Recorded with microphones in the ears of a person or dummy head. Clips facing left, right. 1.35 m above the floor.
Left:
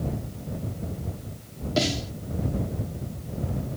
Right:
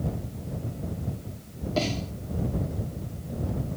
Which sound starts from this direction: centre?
A snare drum, at 1.8 s.